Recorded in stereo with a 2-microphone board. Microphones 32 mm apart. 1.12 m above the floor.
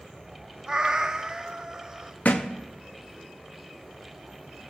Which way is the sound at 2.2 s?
50° left (ahead or behind).